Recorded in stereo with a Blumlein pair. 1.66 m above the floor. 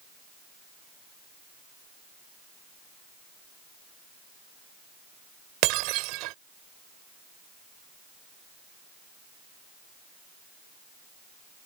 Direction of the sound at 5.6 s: 40° right.